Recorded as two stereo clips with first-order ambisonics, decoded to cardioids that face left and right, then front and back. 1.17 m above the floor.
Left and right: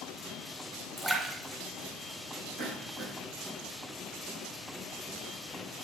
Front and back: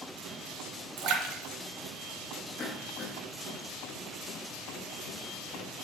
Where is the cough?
75° right, 3.5 m.